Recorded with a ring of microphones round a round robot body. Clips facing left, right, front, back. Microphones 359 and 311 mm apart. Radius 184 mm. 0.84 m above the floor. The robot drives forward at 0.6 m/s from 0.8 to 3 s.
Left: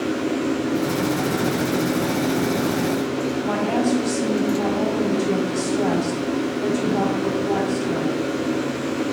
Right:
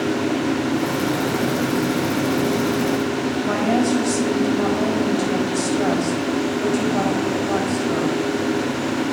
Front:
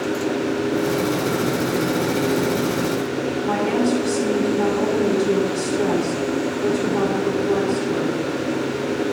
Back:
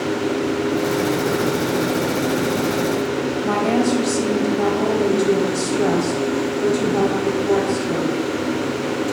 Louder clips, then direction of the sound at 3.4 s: Right 3 dB, back 1 dB; 135° right.